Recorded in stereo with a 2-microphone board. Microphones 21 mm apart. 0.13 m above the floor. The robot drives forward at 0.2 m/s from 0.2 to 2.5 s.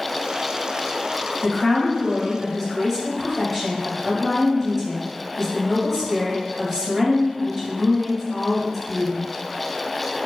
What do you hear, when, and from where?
1.4 s a woman speaking: 10° left (ahead or behind), 1.6 m; by 9.3 s 5° left (ahead or behind), 1.7 m